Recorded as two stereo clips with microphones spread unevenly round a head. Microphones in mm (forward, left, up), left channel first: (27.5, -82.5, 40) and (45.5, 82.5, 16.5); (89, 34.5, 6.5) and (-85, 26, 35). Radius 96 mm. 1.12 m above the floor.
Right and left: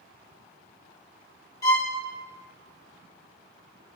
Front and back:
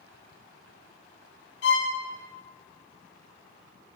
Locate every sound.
1.6 s a violin: 30° right, 4 m